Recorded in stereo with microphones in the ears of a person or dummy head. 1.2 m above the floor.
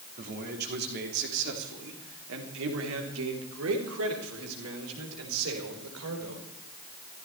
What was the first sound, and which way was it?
A man speaking, 50° right (ahead or behind).